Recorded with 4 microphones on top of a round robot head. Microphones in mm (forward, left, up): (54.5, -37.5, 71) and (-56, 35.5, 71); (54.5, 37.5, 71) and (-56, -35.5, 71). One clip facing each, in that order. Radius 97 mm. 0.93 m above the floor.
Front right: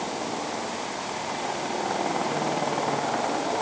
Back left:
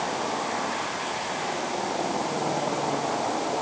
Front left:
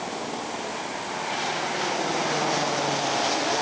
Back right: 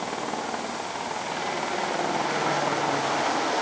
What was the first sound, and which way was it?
Only background noise.